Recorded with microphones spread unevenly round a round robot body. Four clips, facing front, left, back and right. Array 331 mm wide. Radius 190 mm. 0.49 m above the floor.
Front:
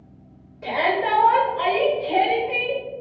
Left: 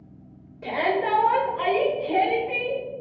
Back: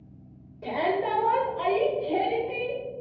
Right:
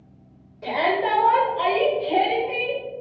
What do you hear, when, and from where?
0.6 s a shout: 165° left, 1.5 m; by 2.8 s 125° left, 2.5 m